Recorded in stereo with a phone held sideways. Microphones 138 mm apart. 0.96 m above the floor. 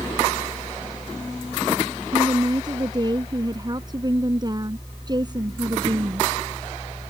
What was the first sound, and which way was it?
A fan, 20° left (ahead or behind).